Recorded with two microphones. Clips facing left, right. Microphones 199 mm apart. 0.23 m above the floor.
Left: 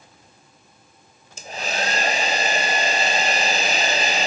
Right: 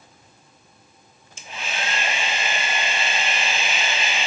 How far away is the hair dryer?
About 1.0 m.